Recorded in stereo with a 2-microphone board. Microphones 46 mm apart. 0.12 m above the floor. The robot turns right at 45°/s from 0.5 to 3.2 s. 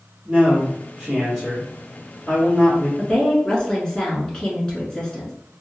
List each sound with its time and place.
0.2 s a man speaking: 45° right, 1.8 m; by 2.9 s 60° left, 1.8 m
3.0 s a woman speaking: 20° left (ahead or behind), 1.1 m